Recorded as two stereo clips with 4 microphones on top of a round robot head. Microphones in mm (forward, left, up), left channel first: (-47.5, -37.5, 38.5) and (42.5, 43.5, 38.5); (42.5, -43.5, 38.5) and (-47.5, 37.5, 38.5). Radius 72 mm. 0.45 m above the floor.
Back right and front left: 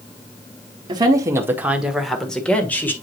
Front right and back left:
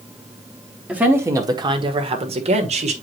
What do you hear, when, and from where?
0.9 s a woman speaking: 65° left, 1.3 m; by 2.9 s 150° left, 2 m